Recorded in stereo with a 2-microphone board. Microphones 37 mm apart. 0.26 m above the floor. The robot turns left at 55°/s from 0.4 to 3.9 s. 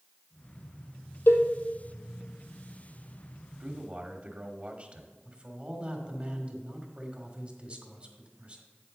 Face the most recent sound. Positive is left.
turn(degrees=-30)  # may be behind; listen again after turning